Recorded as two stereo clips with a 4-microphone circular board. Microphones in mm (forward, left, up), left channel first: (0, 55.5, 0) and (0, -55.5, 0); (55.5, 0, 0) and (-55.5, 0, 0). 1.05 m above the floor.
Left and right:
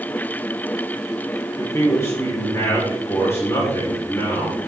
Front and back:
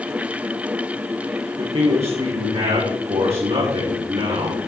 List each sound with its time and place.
1.6 s a man speaking: 155° left, 4 m